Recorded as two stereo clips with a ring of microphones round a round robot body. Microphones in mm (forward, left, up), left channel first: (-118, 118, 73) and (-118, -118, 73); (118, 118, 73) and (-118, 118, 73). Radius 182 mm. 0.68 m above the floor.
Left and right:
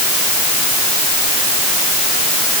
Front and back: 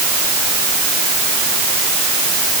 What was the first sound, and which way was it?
Only background noise.